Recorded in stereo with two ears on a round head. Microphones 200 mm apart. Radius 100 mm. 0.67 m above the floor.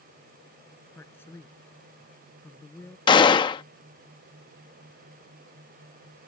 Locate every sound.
0.9 s a man speaking: 10° left (ahead or behind)
3.1 s a gunshot: 20° left (ahead or behind)